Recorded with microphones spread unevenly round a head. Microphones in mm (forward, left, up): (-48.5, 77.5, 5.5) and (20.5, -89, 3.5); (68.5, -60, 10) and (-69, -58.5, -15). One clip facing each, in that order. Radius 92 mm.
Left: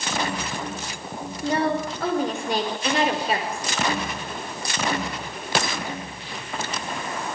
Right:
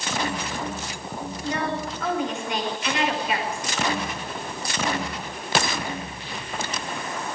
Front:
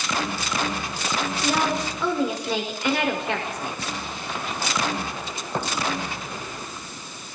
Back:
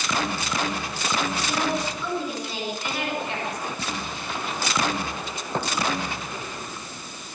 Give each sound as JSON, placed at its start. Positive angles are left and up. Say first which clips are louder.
{"t": 1.4, "sound": "a woman speaking", "louder": "left 6 dB, front 2 dB", "azimuth_deg": 55, "distance_m": 5.5}